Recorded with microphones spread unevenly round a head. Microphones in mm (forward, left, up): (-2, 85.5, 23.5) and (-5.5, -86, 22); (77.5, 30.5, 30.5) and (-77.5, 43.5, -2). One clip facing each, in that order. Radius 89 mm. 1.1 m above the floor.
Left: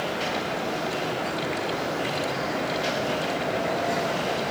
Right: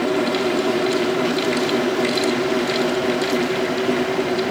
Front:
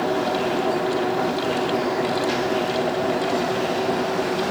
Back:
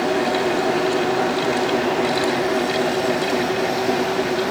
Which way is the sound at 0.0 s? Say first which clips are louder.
Right 10 dB, back 2 dB; 105° right.